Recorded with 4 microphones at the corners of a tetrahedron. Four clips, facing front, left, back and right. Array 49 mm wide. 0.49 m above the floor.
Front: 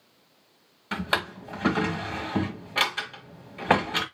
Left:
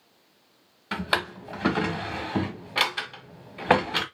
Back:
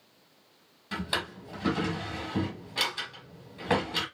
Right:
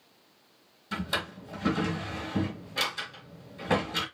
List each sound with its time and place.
0.9 s a drawer: 55° left, 1.5 m